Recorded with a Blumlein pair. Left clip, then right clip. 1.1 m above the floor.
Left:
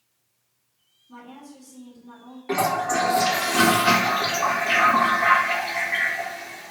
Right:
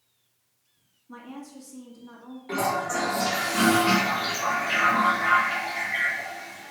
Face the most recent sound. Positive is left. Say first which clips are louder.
# left 4 dB
turn(degrees=70)